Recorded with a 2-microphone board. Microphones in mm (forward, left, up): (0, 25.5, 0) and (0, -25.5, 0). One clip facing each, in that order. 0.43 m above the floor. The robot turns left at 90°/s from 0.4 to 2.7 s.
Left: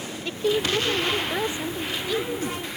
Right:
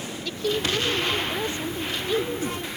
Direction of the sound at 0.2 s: 135° left.